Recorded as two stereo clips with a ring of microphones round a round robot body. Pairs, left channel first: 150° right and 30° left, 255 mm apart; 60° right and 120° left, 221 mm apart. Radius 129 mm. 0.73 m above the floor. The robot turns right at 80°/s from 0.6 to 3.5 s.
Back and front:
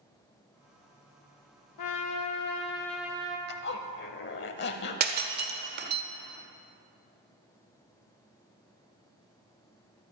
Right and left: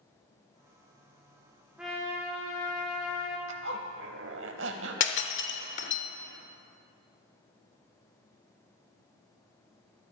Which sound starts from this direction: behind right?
A trumpet, at 1.8 s.